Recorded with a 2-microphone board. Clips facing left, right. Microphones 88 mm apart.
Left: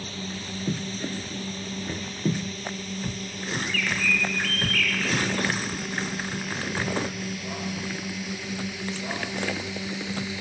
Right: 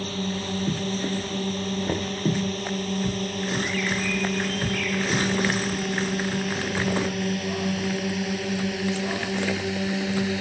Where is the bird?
70° left (ahead or behind).